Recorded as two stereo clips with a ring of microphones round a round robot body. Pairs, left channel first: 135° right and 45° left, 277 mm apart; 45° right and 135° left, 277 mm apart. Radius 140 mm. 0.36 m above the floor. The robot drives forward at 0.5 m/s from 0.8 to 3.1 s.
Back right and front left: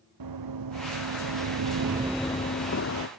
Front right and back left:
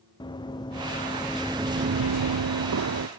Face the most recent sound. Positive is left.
turn(degrees=180)